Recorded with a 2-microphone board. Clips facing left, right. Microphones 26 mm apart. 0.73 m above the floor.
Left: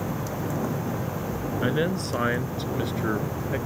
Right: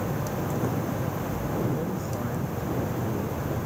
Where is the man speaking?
80° left; by 3.6 s 85° left.